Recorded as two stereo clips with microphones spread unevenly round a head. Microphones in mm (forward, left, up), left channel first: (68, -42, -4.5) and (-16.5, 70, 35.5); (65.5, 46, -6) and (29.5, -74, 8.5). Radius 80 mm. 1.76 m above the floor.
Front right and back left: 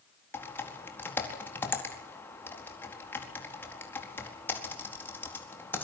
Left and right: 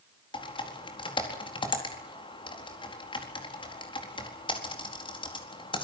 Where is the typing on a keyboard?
25° left, 4.5 m.